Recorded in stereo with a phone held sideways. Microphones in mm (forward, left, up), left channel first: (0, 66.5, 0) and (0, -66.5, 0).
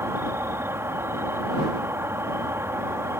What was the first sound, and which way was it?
An insect, 20° right (ahead or behind).